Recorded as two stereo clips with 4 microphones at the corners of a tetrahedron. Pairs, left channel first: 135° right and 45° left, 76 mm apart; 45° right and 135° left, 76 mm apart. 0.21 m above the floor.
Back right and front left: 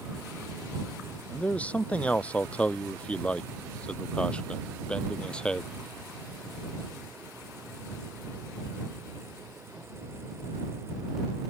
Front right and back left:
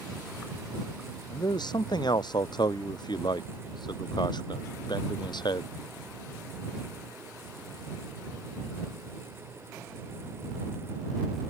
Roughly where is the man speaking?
Ahead right.